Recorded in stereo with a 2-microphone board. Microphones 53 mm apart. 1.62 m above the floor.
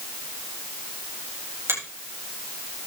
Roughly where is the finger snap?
Right.